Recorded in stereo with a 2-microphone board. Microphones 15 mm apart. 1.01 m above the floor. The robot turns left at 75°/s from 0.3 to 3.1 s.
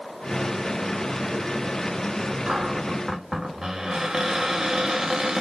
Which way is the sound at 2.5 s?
105° right.